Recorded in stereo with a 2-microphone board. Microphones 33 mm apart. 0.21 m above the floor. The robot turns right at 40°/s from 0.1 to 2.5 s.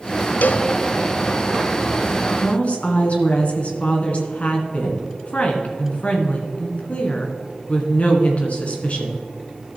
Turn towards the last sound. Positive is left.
turn(degrees=40)  # may be behind; listen again after turning